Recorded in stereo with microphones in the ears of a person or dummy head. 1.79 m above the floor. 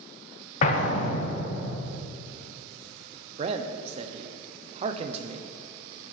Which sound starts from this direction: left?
An explosion, at 0.6 s.